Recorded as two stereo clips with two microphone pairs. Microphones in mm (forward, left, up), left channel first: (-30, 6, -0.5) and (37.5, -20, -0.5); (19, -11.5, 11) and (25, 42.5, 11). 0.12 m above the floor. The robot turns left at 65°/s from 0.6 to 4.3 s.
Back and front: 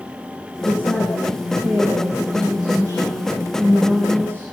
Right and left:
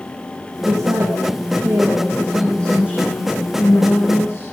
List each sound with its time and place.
0.6 s a woman speaking: 105° left, 7 m; by 4.5 s 135° right, 7 m